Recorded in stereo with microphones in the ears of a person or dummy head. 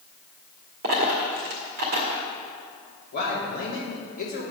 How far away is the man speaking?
About 3 m.